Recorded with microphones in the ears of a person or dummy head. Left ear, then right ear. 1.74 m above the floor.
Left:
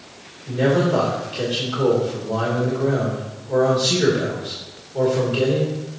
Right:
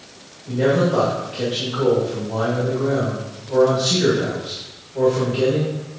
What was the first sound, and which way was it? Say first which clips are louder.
A man speaking: right 1 dB; 40° left (ahead or behind).